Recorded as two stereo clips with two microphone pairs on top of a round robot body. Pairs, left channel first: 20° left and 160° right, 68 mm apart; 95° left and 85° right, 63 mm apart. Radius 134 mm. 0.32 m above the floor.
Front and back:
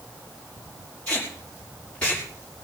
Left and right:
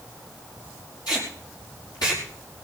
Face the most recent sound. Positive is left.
turn(degrees=95)